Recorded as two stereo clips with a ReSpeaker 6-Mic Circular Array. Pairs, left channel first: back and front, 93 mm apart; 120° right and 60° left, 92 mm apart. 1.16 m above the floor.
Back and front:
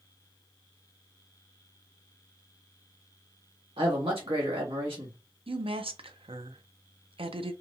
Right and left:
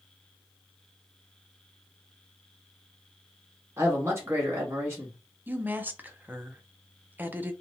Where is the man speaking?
Straight ahead, 1.5 m.